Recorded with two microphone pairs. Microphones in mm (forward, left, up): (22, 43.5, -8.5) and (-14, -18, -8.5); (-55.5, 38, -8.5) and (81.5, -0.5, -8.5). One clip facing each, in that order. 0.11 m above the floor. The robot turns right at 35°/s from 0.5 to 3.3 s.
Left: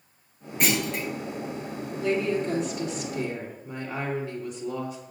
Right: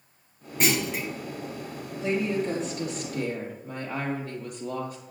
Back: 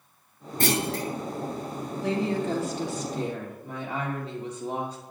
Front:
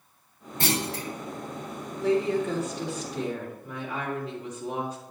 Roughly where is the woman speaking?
Behind.